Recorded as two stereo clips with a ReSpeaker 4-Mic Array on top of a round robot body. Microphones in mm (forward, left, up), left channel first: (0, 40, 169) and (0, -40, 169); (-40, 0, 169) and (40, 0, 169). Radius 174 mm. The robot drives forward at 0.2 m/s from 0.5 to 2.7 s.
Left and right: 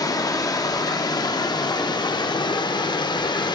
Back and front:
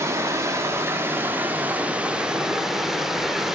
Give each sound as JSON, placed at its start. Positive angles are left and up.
{"t": 0.0, "sound": "running water", "azimuth_deg": 55, "distance_m": 0.9}